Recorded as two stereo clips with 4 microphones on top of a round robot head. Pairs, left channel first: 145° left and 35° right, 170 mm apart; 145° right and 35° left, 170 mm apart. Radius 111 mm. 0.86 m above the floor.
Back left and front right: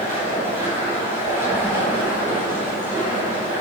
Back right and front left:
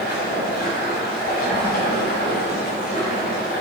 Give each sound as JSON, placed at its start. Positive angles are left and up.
{"t": 0.0, "sound": "running water", "azimuth_deg": -115, "distance_m": 3.0}